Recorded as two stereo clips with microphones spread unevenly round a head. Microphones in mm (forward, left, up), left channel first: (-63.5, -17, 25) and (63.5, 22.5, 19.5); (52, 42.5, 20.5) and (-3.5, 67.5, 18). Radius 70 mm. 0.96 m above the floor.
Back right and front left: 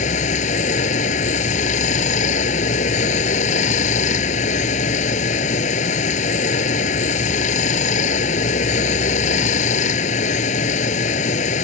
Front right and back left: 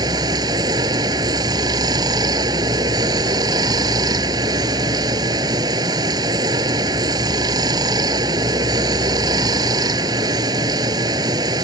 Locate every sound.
0.0 s running water: 160° left